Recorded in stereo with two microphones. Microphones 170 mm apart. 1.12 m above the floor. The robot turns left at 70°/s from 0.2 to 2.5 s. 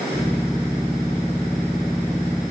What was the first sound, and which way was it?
Only background noise.